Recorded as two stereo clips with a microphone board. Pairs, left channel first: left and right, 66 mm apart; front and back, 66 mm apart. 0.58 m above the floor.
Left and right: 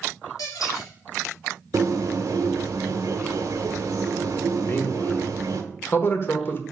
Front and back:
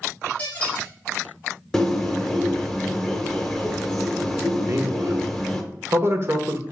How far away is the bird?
About 1.2 m.